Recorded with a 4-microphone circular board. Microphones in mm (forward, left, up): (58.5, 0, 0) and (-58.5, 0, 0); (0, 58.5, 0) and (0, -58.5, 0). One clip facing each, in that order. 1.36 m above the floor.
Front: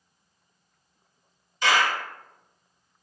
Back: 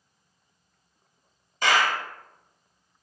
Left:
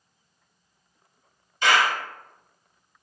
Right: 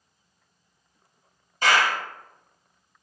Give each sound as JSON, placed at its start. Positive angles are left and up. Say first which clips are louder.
{"t": 1.6, "sound": "a clap", "louder": "even, even", "azimuth_deg": -135, "distance_m": 1.1}